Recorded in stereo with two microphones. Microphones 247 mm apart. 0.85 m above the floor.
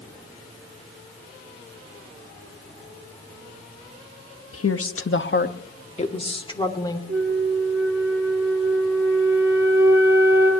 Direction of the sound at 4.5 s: 65° left (ahead or behind).